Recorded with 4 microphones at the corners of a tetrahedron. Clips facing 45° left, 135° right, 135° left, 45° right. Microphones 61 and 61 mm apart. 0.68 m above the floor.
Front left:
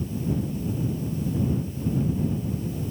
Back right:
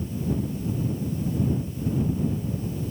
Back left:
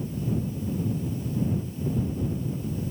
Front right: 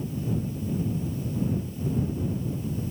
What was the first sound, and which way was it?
Only background noise.